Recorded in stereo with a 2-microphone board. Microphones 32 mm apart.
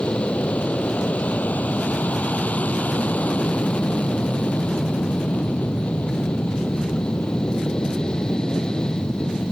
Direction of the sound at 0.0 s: 55° left (ahead or behind).